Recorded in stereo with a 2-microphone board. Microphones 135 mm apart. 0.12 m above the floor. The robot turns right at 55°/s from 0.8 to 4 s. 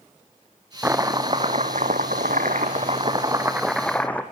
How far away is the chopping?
About 1.8 m.